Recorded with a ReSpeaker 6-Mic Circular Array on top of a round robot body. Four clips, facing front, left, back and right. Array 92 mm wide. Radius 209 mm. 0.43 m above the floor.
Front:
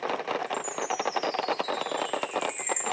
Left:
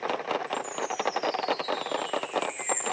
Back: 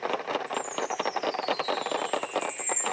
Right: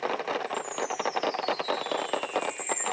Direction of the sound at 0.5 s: 45° left.